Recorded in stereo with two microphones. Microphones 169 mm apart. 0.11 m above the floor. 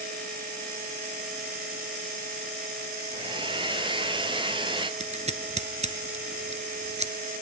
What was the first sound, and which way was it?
A hair dryer, 30° right (ahead or behind).